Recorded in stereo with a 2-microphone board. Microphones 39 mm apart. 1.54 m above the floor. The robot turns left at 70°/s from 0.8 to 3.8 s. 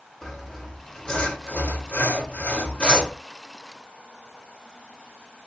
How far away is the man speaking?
No man speaking in this recording.